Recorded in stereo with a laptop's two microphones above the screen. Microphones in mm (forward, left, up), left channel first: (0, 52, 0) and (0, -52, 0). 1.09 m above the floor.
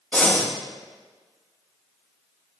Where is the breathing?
15° left (ahead or behind), 0.7 m.